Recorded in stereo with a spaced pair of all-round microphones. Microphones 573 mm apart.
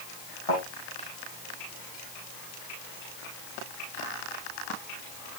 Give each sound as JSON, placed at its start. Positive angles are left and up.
{"t": 0.5, "sound": "a thud", "side_deg": 65, "distance_m": 8.0}